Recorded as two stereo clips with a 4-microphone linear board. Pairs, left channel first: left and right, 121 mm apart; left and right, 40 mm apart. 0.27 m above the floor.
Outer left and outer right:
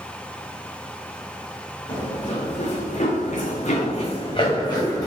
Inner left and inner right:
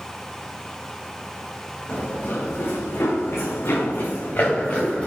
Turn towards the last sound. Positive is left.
turn(degrees=30)  # may be behind; listen again after turning